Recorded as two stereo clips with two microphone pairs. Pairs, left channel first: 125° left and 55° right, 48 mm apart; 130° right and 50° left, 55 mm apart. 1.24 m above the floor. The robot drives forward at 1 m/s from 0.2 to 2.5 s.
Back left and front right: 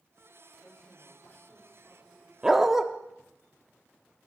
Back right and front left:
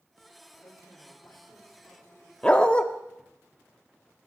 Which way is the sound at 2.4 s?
95° right.